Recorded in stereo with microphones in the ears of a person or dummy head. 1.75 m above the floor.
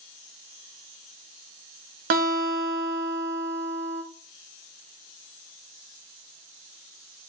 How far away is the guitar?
About 1.2 m.